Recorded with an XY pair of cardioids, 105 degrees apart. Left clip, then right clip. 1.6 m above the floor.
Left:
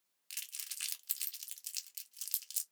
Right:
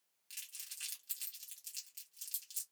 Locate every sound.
0.3 s crumpling: 50° left, 0.9 m